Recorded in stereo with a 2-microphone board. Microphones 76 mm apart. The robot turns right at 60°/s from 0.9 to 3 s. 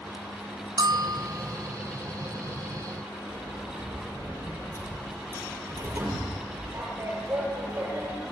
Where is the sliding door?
30° right (ahead or behind), 6.5 m.